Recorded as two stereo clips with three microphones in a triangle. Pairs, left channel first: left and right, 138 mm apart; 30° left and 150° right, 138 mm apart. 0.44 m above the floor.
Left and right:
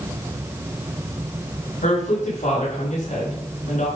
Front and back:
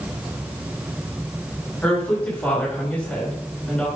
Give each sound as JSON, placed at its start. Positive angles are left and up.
{"t": 1.8, "sound": "a woman speaking", "azimuth_deg": 110, "distance_m": 5.0}